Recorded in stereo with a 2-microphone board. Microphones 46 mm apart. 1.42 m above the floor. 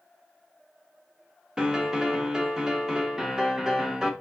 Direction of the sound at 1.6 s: 15° right (ahead or behind).